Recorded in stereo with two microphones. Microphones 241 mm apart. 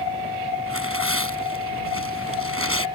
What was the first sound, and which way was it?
Tearing paper, 65° right (ahead or behind).